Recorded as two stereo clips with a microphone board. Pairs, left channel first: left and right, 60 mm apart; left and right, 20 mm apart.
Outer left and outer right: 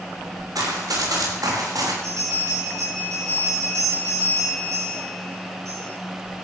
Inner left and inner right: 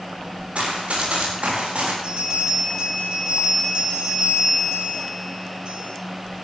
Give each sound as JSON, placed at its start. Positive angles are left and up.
{"t": 0.6, "sound": "running footsteps", "side_deg": -85, "distance_m": 7.0}
{"t": 2.0, "sound": "a bell", "side_deg": -55, "distance_m": 8.0}